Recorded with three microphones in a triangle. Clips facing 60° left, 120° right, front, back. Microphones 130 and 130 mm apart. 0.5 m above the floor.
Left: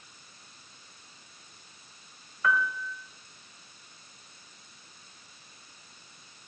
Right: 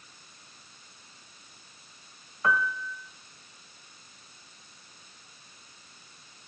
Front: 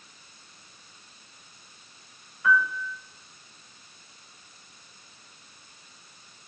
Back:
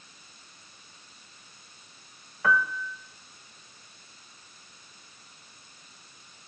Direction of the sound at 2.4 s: 175° right.